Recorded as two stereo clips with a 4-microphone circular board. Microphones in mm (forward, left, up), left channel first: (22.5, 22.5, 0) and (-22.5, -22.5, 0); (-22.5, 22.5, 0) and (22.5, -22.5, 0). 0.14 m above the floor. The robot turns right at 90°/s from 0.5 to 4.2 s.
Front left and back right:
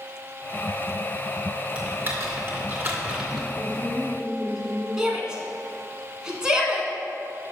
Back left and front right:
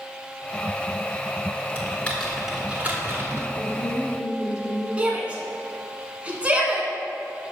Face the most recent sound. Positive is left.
turn(degrees=-75)